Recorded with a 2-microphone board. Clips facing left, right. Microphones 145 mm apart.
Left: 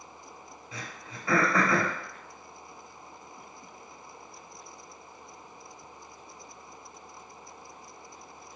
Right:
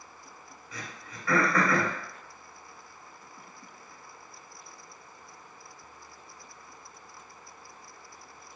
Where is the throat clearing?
25° left (ahead or behind), 0.8 m.